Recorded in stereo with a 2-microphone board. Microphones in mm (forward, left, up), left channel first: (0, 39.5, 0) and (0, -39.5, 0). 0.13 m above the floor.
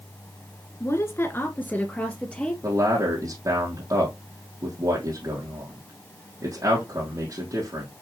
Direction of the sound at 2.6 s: 45° right (ahead or behind).